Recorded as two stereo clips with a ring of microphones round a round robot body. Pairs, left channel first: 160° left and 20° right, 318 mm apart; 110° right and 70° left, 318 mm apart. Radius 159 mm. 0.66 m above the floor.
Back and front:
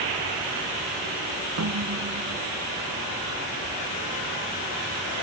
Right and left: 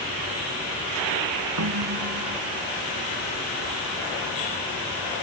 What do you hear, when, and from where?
1.6 s a snare drum: 25° left